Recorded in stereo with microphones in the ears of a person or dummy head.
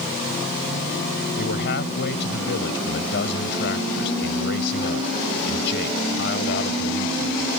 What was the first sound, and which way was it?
A man speaking, 60° left (ahead or behind).